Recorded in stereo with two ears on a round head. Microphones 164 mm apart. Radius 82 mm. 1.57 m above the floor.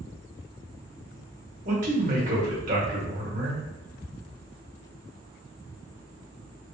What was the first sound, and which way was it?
A man speaking, 45° right (ahead or behind).